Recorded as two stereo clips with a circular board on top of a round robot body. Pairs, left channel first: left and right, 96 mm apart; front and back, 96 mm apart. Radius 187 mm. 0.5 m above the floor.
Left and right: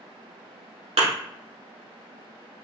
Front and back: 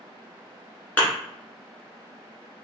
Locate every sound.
1.0 s a thud: 75° right, 1.3 m